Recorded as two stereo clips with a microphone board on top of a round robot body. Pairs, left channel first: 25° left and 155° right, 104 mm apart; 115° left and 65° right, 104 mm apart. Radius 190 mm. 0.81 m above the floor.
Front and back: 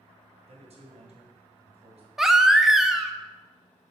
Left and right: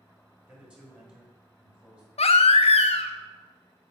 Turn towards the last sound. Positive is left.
turn(degrees=115)